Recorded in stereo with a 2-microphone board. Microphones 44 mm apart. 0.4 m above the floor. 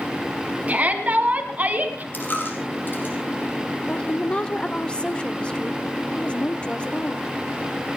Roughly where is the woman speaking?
Left.